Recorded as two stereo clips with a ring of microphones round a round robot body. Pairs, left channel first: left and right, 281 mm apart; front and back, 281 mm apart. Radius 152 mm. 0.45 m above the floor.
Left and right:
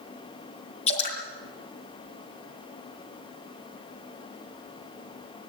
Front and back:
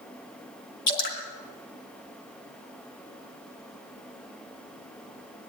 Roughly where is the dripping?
Ahead.